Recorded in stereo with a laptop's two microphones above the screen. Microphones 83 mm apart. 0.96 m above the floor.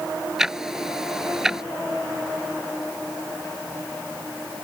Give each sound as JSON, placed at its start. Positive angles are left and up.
{"t": 0.4, "sound": "ticking", "side_deg": -5}